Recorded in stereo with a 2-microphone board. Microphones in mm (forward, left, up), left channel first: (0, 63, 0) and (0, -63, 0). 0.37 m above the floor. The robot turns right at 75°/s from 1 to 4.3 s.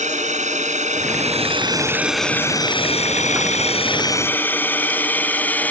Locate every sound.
0.0 s a drone: 70° right (ahead or behind); by 5.7 s 15° left (ahead or behind)